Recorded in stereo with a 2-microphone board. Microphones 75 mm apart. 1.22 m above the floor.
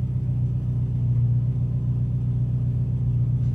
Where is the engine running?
15° right (ahead or behind), 0.9 m.